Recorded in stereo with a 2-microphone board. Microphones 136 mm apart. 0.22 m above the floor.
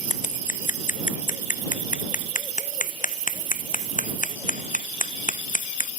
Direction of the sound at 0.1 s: 75° left (ahead or behind).